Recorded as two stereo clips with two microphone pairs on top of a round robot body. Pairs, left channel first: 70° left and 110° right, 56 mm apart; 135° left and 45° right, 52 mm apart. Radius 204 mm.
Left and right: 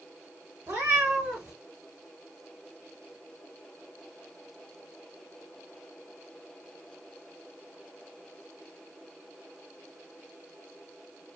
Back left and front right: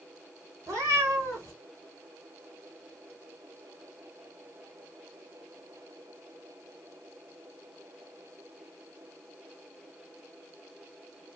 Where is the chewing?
No chewing in this recording.